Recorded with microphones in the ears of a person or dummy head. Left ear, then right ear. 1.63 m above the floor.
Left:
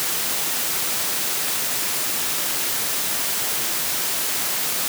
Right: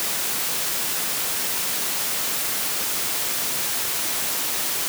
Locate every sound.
Only background noise.